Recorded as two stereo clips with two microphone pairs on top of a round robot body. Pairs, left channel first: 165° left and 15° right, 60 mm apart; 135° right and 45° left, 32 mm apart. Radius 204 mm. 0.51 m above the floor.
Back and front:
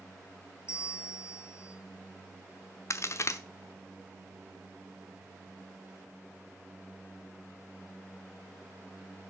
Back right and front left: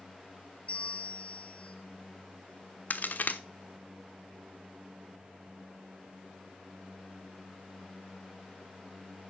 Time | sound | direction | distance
0.7 | a bell | 175° right | 1.9 m
2.9 | a crack | 155° right | 1.1 m